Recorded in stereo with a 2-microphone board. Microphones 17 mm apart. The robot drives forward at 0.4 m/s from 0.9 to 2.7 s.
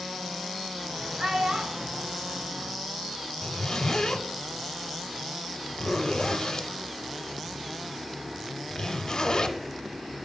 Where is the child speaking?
65° right (ahead or behind), 1.3 m; by 2.1 s 70° right (ahead or behind), 1.2 m.